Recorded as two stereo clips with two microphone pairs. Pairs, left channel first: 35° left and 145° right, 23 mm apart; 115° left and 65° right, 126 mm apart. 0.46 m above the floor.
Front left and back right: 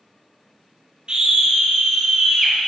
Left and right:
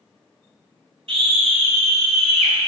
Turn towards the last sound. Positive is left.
turn(degrees=-60)